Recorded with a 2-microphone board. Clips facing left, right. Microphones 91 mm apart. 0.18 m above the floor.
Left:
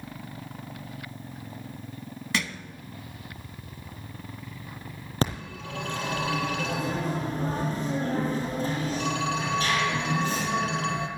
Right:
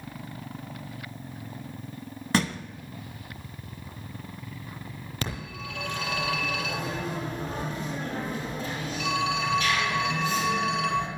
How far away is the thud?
About 0.6 m.